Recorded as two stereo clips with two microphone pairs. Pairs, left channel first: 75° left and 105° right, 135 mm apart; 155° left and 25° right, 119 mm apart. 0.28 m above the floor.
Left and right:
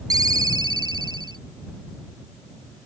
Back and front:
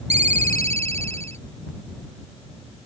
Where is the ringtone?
45° right.